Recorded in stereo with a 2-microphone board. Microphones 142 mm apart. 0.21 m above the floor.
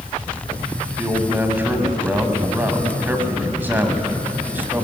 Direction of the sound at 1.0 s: 15° right (ahead or behind).